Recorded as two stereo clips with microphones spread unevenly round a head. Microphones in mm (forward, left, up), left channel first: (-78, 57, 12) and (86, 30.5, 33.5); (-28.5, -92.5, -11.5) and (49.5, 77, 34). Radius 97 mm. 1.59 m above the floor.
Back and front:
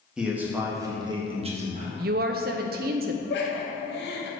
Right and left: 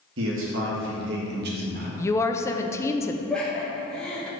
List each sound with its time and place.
0.2 s a man speaking: 75° left, 2.0 m; by 1.9 s 30° left, 1.8 m
2.0 s a woman speaking: 30° right, 0.6 m
3.3 s laughter: 155° left, 1.3 m